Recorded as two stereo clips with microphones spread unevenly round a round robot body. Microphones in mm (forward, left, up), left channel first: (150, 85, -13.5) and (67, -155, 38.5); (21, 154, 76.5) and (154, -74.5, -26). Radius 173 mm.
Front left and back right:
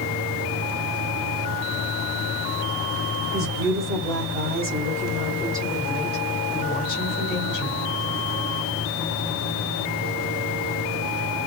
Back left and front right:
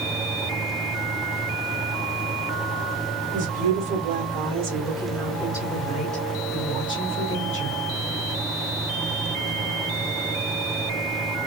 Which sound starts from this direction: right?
A woman speaking, at 3.3 s.